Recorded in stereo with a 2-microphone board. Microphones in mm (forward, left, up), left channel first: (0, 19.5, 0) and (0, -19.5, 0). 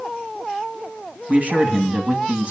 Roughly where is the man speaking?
Right.